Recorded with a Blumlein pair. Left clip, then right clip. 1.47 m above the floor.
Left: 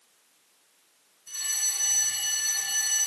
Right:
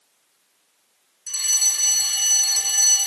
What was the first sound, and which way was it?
A fire alarm, 40° right.